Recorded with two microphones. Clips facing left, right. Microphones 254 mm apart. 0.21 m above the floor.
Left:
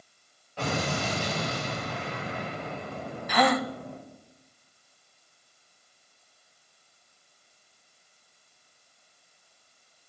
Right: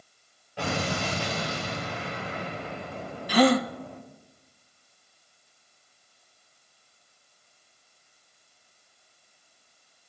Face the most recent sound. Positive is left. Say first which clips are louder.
# right 5 dB
turn(degrees=-35)  # may be behind; listen again after turning